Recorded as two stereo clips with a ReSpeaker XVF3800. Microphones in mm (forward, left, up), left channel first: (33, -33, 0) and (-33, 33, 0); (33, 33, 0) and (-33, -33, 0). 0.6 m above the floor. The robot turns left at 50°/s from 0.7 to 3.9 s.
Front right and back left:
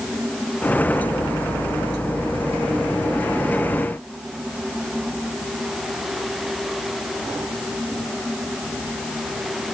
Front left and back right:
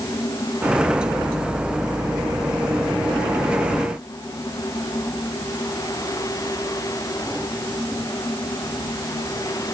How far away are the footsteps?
I don't hear footsteps.